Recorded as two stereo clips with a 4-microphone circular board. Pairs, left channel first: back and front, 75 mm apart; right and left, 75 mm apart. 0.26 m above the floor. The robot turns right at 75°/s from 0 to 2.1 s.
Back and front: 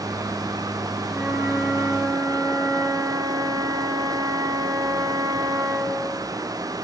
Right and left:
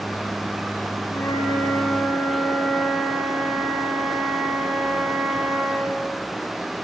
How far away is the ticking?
I don't hear ticking.